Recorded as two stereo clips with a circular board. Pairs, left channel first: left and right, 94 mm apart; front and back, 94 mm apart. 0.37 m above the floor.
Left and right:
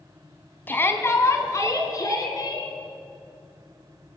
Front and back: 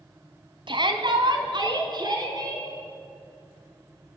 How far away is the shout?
About 2.5 m.